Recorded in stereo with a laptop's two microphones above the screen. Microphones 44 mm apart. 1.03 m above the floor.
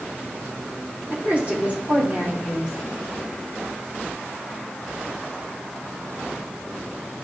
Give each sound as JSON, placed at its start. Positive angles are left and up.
{"t": 1.1, "sound": "a woman speaking", "side_deg": -40, "distance_m": 3.0}